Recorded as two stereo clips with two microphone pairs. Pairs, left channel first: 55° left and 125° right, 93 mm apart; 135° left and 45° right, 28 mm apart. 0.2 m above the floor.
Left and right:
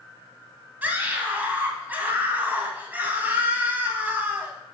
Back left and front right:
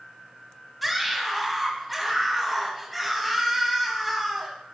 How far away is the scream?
About 1.1 m.